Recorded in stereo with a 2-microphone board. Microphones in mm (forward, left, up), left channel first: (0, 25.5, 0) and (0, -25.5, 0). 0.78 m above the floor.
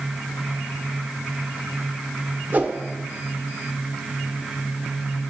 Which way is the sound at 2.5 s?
30° right (ahead or behind).